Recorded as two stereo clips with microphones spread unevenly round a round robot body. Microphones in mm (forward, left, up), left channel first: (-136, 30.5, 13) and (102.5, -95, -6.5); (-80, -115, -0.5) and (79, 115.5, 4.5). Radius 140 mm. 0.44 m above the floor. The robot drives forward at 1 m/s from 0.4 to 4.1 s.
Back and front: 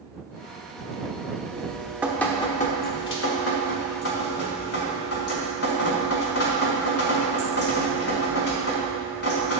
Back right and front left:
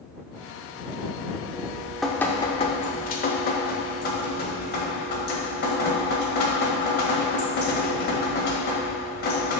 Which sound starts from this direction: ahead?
Dripping, at 1.5 s.